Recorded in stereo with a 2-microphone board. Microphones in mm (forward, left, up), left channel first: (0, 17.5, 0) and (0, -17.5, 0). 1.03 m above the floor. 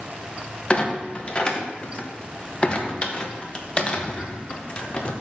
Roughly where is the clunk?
Left.